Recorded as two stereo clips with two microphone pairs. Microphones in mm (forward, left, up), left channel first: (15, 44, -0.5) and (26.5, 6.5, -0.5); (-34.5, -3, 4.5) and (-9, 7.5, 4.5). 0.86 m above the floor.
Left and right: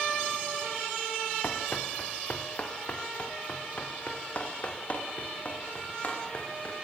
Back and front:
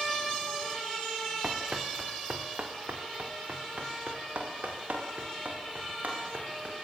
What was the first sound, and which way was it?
Running footsteps, 60° left.